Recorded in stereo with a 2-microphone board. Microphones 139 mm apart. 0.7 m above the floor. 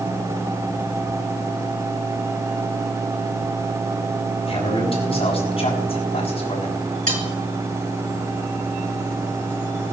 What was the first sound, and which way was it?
A man speaking, 40° left (ahead or behind).